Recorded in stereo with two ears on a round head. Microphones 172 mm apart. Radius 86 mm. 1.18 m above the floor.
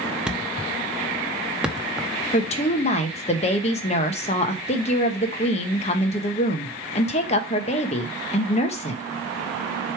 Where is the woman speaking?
35° left (ahead or behind), 1.2 m.